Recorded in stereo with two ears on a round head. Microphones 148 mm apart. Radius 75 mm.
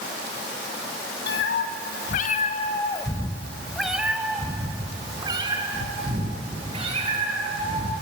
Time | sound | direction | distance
1.3 | a cat meowing | 75° left (ahead or behind) | 2 m